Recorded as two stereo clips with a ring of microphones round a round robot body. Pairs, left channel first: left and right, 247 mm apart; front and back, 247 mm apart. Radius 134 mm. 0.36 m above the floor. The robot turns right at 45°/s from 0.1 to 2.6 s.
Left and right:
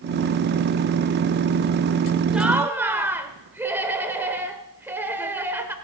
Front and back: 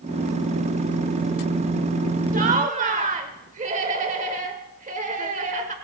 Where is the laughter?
175° right, 1.0 m; by 5.8 s 165° right, 1.0 m.